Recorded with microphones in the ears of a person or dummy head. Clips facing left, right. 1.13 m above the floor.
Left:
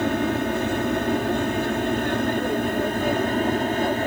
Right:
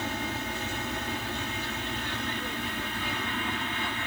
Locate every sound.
0.0 s an aircraft: 50° left (ahead or behind); by 4.1 s 40° left (ahead or behind)